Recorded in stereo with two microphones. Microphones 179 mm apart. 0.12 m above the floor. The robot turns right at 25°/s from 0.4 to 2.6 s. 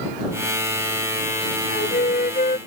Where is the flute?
55° left (ahead or behind); by 2.6 s 45° left (ahead or behind).